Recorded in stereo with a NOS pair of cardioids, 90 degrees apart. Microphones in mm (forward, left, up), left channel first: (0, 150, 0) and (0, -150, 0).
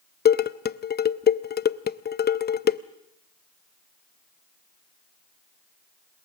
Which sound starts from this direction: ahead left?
Dishes clattering, at 0.2 s.